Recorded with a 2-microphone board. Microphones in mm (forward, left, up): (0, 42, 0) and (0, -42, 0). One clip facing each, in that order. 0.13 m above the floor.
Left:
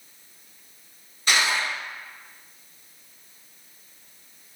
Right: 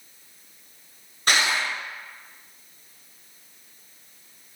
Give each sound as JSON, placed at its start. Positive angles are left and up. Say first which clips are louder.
{"t": 1.3, "sound": "crushing", "louder": "even", "side_deg": -50, "distance_m": 1.6}